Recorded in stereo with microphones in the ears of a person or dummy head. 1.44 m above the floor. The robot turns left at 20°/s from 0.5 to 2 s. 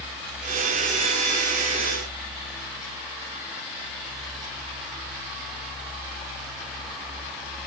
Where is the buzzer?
No buzzer in this recording.